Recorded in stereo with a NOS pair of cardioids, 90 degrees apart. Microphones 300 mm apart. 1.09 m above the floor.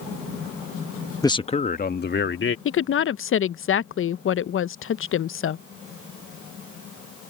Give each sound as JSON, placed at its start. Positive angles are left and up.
{"t": 1.2, "sound": "a man speaking", "azimuth_deg": 10}
{"t": 2.6, "sound": "a woman speaking", "azimuth_deg": 45}